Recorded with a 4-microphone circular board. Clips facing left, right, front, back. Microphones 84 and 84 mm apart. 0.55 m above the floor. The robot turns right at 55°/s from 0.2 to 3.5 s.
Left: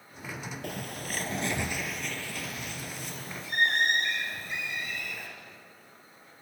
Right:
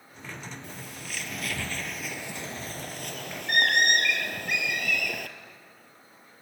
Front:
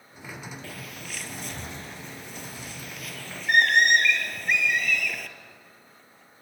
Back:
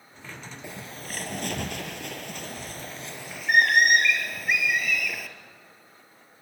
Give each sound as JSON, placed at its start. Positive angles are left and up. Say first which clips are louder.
{"t": 0.6, "sound": "a bird", "louder": "left 5 dB, back 1 dB", "azimuth_deg": 110, "distance_m": 2.5}